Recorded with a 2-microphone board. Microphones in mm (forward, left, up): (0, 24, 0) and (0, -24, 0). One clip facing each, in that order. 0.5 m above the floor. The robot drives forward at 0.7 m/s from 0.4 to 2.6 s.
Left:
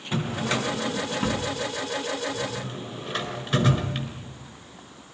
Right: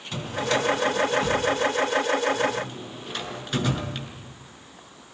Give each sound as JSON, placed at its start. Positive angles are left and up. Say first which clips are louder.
{"t": 0.1, "sound": "a drawer", "louder": "right 1 dB", "side_deg": 20, "distance_m": 3.5}